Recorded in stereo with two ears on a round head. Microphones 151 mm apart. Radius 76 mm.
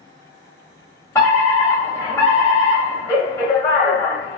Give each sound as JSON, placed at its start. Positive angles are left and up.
{"t": 1.1, "sound": "a fire alarm", "side_deg": 15, "distance_m": 1.3}